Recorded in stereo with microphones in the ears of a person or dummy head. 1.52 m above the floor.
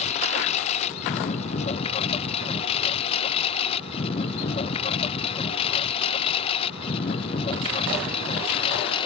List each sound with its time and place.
0.0 s a lawn mower: 35° left (ahead or behind); by 9.1 s 25° left (ahead or behind)